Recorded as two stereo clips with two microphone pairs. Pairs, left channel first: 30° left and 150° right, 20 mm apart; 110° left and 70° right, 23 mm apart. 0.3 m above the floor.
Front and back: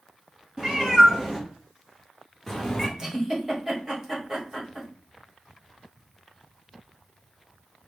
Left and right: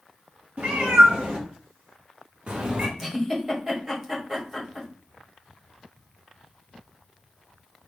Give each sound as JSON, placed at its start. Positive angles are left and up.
{"t": 0.6, "sound": "a cat meowing", "azimuth_deg": -85, "distance_m": 3.0}
{"t": 3.0, "sound": "a giggle", "azimuth_deg": -135, "distance_m": 1.7}